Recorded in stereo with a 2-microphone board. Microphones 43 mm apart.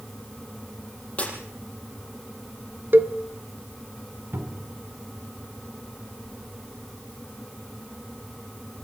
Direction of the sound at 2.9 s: 50° right (ahead or behind).